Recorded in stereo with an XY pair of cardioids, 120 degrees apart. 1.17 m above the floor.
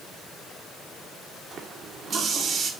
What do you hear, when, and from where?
1.5 s a running tap: 40° right, 2 m